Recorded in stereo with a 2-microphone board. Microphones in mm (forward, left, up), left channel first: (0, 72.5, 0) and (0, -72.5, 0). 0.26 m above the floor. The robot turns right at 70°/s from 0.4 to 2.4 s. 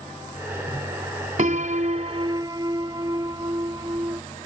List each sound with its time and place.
1.4 s a piano: 105° right; by 4.2 s 35° right